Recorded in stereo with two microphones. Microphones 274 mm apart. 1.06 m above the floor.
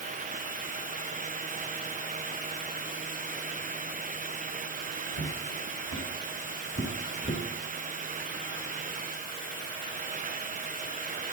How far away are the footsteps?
About 4 m.